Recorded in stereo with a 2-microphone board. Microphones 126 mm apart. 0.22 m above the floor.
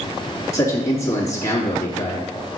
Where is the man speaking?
25° left (ahead or behind), 3 m.